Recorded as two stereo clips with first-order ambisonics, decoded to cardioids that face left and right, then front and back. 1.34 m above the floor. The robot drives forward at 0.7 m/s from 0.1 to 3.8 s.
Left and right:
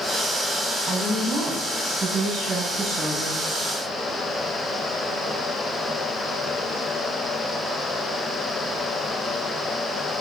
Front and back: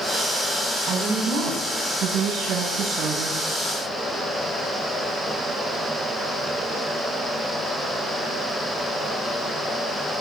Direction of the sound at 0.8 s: 150° right.